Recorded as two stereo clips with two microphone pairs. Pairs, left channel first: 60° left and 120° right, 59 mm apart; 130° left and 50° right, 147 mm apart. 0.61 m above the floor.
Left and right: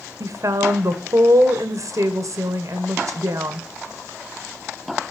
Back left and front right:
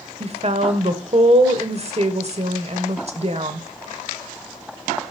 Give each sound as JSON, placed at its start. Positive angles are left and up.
{"t": 0.2, "sound": "a woman speaking", "azimuth_deg": -95, "distance_m": 1.8}